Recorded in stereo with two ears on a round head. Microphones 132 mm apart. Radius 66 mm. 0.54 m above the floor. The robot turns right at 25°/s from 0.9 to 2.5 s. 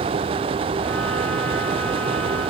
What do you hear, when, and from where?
Only background noise.